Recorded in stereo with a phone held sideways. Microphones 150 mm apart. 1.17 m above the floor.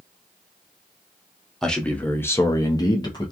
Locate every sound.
1.6 s a man speaking: 5° left (ahead or behind), 0.8 m; by 3.3 s 30° left (ahead or behind), 0.8 m